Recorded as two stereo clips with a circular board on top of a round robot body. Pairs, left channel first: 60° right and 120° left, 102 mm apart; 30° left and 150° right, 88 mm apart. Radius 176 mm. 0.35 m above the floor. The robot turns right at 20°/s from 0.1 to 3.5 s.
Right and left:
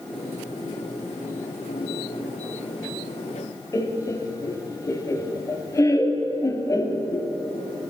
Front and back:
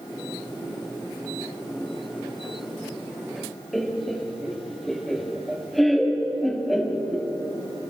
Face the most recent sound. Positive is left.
turn(degrees=-55)